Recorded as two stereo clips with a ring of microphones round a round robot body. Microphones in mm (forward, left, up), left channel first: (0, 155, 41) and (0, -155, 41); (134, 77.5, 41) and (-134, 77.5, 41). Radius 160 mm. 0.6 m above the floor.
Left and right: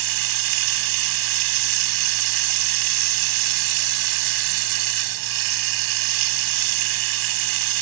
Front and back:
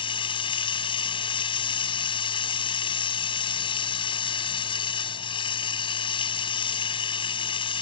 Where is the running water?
75° right.